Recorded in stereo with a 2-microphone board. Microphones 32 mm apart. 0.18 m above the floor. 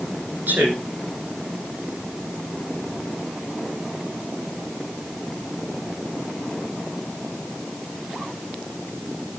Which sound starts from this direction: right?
A man speaking, at 0.5 s.